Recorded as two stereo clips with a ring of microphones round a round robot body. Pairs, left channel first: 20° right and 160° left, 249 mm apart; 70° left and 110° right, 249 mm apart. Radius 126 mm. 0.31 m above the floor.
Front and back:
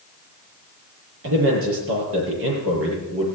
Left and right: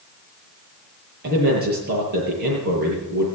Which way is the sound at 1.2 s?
165° right.